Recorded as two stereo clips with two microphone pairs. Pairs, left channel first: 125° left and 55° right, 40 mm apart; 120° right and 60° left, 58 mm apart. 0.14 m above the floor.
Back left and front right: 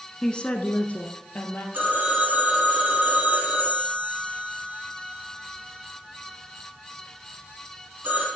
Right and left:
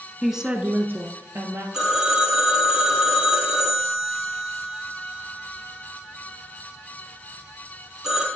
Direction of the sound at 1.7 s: 20° right.